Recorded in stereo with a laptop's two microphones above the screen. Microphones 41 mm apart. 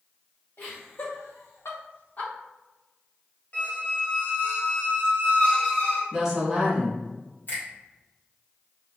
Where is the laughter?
60° left (ahead or behind), 1.4 m; by 2.3 s 30° left (ahead or behind), 0.7 m.